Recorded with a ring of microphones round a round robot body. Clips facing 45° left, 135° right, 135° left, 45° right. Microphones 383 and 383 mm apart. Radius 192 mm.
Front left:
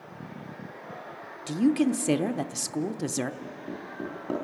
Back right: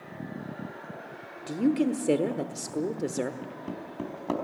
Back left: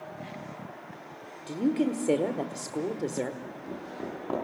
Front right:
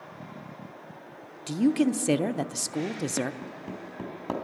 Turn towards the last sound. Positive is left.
turn(degrees=-75)